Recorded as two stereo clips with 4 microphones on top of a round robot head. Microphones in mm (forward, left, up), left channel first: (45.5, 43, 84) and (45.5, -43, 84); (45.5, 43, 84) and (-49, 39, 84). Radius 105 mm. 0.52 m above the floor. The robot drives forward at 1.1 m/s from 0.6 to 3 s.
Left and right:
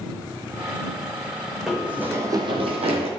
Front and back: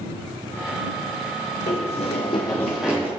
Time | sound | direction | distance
1.7 | running footsteps | 5° right | 1.9 m